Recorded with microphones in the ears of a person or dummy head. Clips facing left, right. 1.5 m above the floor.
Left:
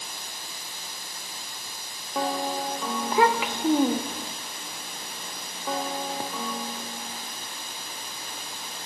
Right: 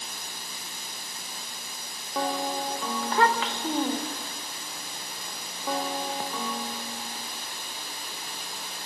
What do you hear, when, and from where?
3.0 s a child speaking: 10° left (ahead or behind), 0.9 m